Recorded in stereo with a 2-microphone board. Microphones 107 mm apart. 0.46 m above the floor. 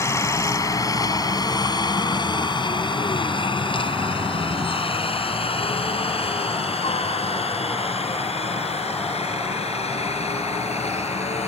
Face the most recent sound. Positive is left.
turn(degrees=75)  # may be behind; listen again after turning